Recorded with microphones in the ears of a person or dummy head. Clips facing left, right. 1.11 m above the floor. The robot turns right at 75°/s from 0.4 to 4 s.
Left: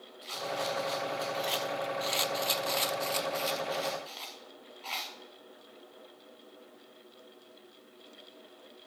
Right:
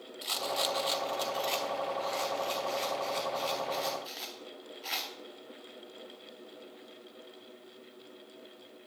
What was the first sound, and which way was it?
A rattle, 60° right (ahead or behind).